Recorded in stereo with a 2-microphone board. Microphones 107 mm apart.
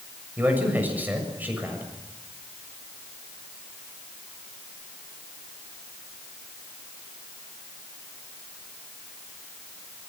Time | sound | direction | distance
0.4 | a man speaking | 15° right (ahead or behind) | 7 m